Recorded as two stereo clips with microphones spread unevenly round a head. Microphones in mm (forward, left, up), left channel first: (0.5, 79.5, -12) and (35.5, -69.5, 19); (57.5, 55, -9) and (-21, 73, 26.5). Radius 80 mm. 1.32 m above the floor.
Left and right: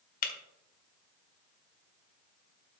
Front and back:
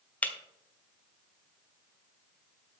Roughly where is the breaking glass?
Left.